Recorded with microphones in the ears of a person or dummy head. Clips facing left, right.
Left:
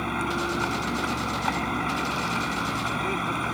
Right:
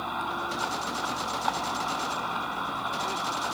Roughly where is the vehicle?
Left.